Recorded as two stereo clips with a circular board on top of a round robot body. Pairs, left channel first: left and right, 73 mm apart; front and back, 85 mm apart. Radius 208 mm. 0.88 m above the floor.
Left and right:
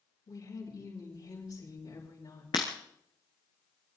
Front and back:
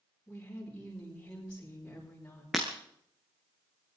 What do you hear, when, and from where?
0.3 s a woman speaking: 75° left, 7 m
2.5 s breaking glass: 95° left, 0.9 m